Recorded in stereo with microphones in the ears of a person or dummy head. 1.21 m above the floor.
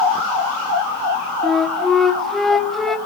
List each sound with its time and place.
1.4 s a flute: 5° left (ahead or behind), 1.4 m